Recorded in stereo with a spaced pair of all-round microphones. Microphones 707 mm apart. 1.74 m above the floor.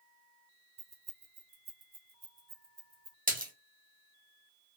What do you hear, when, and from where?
0.8 s keys jangling: 40° right (ahead or behind), 0.8 m; by 3.2 s 55° right (ahead or behind), 1.7 m
3.3 s a splash: 10° right (ahead or behind), 1.1 m